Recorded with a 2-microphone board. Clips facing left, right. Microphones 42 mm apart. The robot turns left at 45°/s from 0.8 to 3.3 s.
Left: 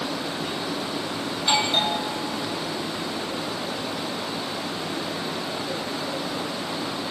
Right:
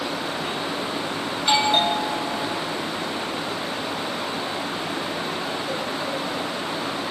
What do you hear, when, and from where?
1.4 s a doorbell: 15° right, 7 m; by 2.6 s 70° right, 7 m